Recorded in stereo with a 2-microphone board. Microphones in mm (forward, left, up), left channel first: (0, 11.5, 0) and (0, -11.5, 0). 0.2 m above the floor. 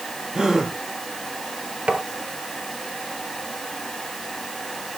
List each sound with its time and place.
0.3 s a gasp: 30° right (ahead or behind), 3 m
1.9 s tapping: 55° right (ahead or behind), 2 m